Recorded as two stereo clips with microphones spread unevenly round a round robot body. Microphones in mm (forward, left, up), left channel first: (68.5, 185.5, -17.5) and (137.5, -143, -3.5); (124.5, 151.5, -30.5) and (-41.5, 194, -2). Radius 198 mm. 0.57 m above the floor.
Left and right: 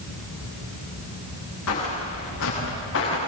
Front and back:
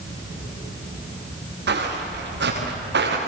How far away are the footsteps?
About 9 m.